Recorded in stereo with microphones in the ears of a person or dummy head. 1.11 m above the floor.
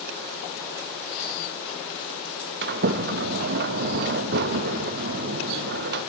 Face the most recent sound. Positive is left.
turn(degrees=-55)  # may be behind; listen again after turning